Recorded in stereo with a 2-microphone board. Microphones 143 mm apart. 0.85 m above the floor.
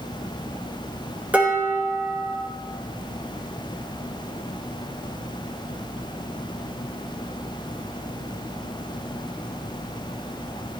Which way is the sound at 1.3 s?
10° right (ahead or behind).